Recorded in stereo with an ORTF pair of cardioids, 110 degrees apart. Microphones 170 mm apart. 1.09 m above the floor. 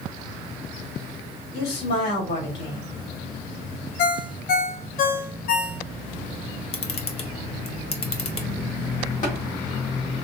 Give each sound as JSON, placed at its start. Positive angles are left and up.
{"t": 1.5, "sound": "a woman speaking", "azimuth_deg": 70, "distance_m": 2.5}
{"t": 4.0, "sound": "a ringtone", "azimuth_deg": 60, "distance_m": 0.5}
{"t": 6.7, "sound": "a camera shutter", "azimuth_deg": 35, "distance_m": 1.0}
{"t": 9.2, "sound": "tapping", "azimuth_deg": 50, "distance_m": 2.0}